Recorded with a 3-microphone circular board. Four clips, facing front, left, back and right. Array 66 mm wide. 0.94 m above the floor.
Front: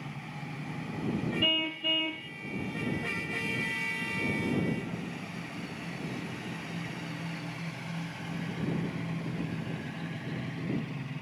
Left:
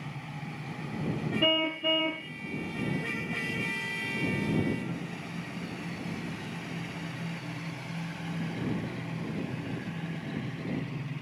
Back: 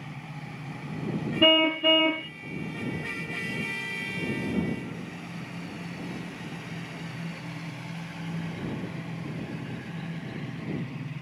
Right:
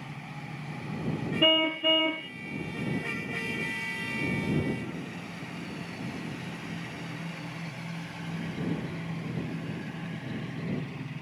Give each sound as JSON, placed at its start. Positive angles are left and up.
{"t": 1.4, "sound": "a car horn", "azimuth_deg": -170}